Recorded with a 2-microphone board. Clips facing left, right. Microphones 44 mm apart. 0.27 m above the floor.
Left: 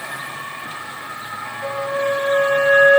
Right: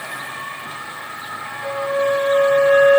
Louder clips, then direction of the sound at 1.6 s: Right 2 dB; 65° left (ahead or behind).